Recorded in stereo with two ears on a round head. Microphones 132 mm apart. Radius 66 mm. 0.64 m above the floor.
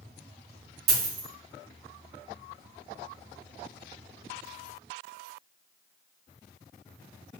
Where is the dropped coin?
80° right, 1.5 m.